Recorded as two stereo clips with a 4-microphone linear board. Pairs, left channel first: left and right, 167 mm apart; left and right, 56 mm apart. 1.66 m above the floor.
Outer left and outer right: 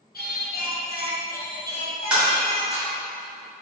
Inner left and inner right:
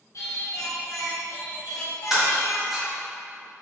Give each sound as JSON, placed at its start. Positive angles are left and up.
{"t": 0.1, "sound": "singing", "side_deg": 65, "distance_m": 1.1}
{"t": 2.1, "sound": "breaking glass", "side_deg": -10, "distance_m": 2.0}